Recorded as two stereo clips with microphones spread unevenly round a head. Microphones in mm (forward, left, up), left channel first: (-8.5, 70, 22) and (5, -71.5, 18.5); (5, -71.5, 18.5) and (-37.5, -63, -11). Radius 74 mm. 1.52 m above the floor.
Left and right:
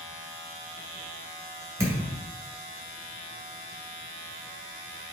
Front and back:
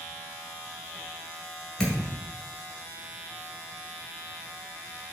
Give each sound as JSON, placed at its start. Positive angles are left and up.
{"t": 1.8, "sound": "a thud", "azimuth_deg": -15, "distance_m": 1.8}